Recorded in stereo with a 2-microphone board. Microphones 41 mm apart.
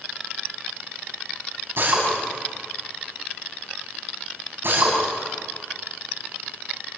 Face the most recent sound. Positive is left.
turn(degrees=-60)  # may be behind; listen again after turning